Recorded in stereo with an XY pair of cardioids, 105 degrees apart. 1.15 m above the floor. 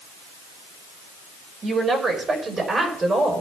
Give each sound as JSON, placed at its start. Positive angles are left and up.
{"t": 1.6, "sound": "a woman speaking", "azimuth_deg": -45, "distance_m": 4.5}